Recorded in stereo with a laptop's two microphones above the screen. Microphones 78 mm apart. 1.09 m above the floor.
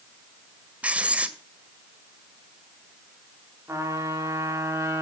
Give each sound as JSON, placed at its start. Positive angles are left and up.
{"t": 0.8, "sound": "writing", "side_deg": -15, "distance_m": 1.8}
{"t": 3.7, "sound": "a trumpet", "side_deg": -35, "distance_m": 3.0}